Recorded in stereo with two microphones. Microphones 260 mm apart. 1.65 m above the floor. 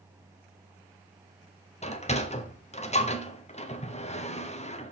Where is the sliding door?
25° left (ahead or behind), 1.1 m.